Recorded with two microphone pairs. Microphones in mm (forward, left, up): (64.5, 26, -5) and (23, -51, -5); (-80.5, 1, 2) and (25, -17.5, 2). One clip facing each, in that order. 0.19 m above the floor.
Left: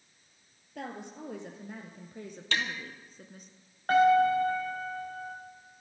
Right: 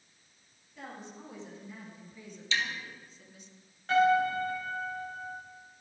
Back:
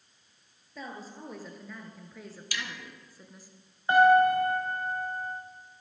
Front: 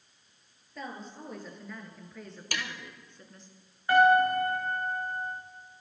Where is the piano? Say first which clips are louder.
Left 3 dB, back 2 dB; 105° left, 6 m.